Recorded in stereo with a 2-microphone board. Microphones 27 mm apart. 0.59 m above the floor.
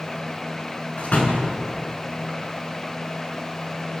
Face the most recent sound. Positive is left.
turn(degrees=55)  # may be behind; listen again after turning